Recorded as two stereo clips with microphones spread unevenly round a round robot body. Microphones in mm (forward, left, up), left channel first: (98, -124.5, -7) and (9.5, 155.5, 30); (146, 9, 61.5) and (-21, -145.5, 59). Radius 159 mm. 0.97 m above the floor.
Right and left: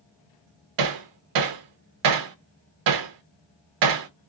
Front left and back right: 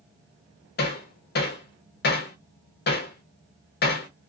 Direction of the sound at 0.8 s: 95° left.